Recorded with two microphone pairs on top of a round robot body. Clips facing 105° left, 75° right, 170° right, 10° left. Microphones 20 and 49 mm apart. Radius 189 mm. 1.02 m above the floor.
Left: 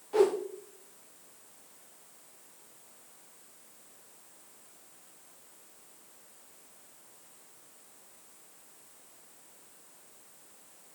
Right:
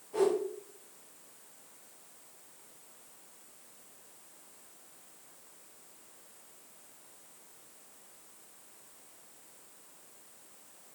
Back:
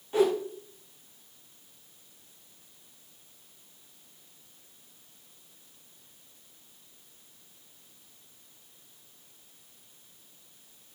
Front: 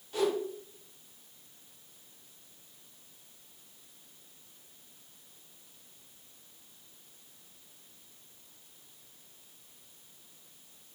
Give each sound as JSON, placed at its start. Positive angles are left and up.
{"t": 0.1, "sound": "a whoosh", "azimuth_deg": 120, "distance_m": 1.6}